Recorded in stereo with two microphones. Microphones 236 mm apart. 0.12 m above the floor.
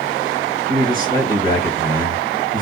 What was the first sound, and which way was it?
A man speaking, 40° right (ahead or behind).